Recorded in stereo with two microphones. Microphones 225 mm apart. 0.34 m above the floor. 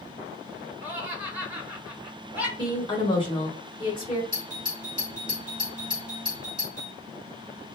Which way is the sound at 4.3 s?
35° left (ahead or behind).